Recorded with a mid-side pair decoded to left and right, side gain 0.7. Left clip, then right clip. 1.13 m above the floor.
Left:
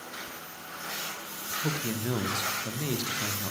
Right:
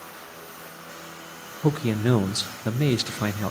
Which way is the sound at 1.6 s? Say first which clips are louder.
Right 10 dB; 40° right.